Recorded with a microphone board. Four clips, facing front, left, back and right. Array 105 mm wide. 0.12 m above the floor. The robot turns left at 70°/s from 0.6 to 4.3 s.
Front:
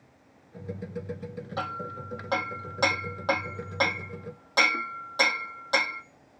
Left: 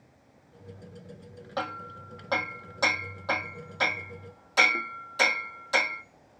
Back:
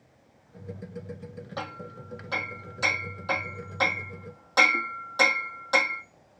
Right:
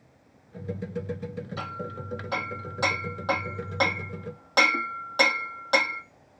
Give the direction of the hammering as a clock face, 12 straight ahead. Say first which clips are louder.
Left 6 dB, front 4 dB; 9 o'clock.